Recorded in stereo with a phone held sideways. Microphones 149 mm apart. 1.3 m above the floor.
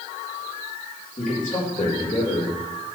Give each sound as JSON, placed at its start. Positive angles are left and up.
{"t": 1.2, "sound": "a man speaking", "side_deg": 60, "distance_m": 5.5}